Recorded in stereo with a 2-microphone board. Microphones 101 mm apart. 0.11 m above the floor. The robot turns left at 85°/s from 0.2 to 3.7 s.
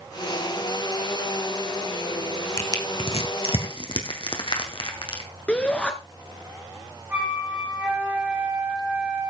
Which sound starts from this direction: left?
Crushing, at 2.6 s.